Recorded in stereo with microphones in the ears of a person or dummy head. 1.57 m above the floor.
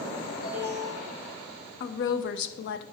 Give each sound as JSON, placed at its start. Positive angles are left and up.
{"t": 0.4, "sound": "an alarm", "side_deg": 25, "distance_m": 1.9}
{"t": 1.8, "sound": "a woman speaking", "side_deg": 65, "distance_m": 0.8}